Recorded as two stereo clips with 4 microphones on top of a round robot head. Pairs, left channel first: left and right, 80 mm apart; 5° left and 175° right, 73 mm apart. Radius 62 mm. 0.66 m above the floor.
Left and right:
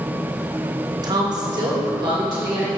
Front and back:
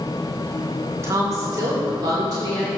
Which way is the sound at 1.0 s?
120° right.